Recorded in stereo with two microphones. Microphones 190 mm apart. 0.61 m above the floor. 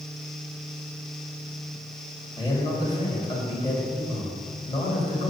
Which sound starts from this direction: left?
A man speaking, at 2.4 s.